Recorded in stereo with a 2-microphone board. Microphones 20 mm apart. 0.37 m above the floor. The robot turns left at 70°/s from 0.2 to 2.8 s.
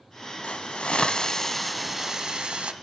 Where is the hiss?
95° left, 0.8 m; by 2.7 s 65° right, 0.8 m.